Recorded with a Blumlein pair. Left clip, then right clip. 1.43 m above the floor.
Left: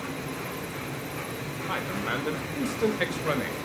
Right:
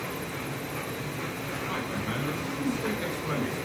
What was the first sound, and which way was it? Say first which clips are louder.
A man speaking: left 5 dB; 70° left.